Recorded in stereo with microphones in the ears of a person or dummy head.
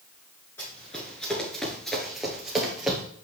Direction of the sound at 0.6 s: 10° left (ahead or behind).